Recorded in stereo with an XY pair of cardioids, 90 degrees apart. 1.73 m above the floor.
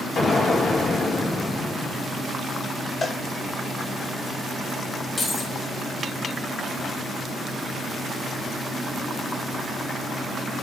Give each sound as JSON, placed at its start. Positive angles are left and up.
{"t": 0.2, "sound": "an explosion", "azimuth_deg": 55, "distance_m": 2.5}
{"t": 3.0, "sound": "a cowbell", "azimuth_deg": 35, "distance_m": 1.6}
{"t": 5.2, "sound": "keys jangling", "azimuth_deg": 45, "distance_m": 3.5}